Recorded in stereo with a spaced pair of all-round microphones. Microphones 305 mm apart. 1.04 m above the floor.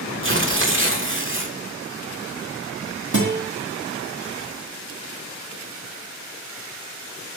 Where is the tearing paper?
40° right (ahead or behind), 1.5 m.